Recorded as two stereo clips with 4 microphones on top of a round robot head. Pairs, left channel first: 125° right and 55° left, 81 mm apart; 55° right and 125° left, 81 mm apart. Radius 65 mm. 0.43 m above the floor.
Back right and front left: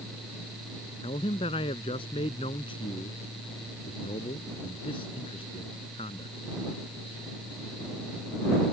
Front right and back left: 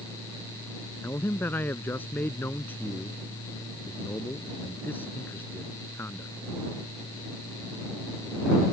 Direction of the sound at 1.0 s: 125° right.